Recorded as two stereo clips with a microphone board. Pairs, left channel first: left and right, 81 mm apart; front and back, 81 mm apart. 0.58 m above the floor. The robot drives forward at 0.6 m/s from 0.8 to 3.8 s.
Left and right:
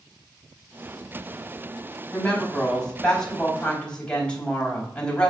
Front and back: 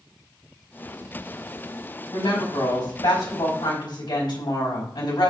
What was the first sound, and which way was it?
A woman speaking, 15° left.